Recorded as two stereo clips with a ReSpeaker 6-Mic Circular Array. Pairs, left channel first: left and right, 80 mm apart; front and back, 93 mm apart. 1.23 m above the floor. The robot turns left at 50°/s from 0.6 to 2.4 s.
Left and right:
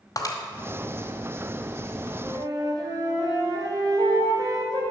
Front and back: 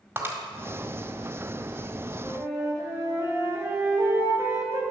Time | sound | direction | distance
0.2 | breaking glass | 115° left | 1.7 m
2.2 | a flute | 110° right | 3 m